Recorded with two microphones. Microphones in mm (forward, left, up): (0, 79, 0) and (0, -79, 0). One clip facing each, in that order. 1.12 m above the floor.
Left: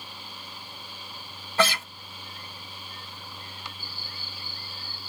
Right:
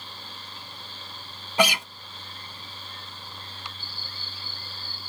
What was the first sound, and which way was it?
A guitar, 15° right (ahead or behind).